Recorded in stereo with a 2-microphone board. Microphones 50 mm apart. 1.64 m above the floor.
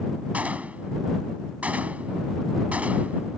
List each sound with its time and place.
0.3 s a gunshot: 25° right (ahead or behind)